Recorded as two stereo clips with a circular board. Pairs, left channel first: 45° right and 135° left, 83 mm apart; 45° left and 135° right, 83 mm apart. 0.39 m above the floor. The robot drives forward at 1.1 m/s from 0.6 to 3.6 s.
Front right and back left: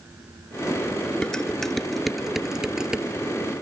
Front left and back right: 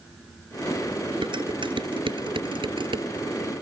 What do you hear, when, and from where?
1.2 s dishes clattering: 125° right; by 3.1 s 145° right